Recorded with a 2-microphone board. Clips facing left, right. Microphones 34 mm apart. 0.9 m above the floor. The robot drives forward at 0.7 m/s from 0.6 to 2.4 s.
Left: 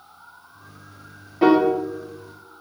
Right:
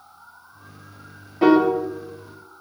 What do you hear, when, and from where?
1.4 s a piano: 5° left (ahead or behind), 0.5 m